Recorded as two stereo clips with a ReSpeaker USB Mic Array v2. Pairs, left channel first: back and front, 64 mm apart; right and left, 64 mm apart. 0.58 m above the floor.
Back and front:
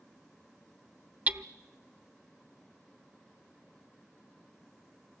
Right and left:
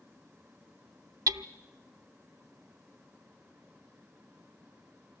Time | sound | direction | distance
1.3 | hammering | 65° left | 0.7 m